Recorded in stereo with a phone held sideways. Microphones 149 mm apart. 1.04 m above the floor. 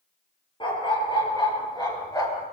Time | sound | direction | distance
0.6 | a dog barking | 35° left (ahead or behind) | 7.5 m